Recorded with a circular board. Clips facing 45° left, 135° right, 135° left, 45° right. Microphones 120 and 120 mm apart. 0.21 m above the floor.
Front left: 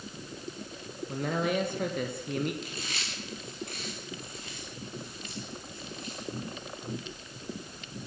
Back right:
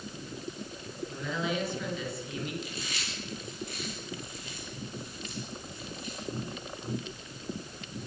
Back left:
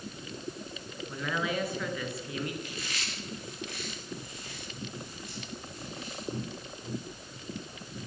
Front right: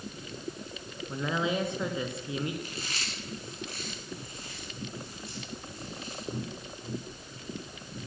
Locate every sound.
1.1 s a man speaking: 20° left, 3.5 m
2.6 s chewing: 10° left, 9 m